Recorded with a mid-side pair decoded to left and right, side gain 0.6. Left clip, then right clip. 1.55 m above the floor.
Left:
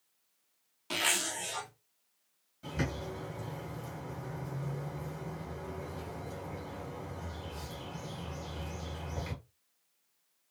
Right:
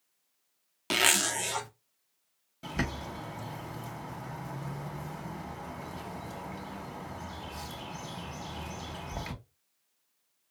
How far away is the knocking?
No knocking in this recording.